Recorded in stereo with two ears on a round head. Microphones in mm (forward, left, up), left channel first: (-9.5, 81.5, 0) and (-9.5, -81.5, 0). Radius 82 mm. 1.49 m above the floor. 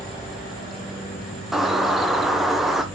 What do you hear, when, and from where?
1.5 s a bird: centre (ahead or behind), 0.9 m